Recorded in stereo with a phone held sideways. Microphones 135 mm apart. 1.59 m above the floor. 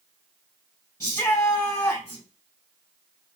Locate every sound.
1.0 s a shout: 25° left (ahead or behind), 1.6 m